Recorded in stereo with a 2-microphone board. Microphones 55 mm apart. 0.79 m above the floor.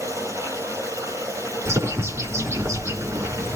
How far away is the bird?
About 5 m.